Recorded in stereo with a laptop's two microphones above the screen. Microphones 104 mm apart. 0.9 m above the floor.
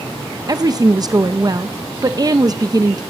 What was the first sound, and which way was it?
A woman speaking, 35° right (ahead or behind).